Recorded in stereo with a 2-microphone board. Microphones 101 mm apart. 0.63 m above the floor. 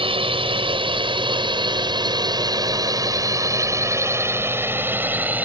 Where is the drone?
60° right (ahead or behind); by 5.5 s 15° right (ahead or behind).